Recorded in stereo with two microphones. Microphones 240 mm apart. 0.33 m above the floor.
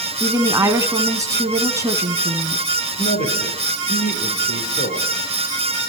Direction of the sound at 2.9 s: 35° left (ahead or behind).